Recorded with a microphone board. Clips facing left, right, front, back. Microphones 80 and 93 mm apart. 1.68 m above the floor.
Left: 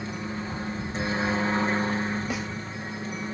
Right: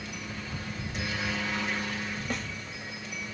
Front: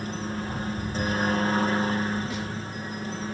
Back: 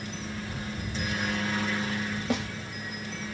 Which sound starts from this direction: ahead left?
A helicopter, at 0.0 s.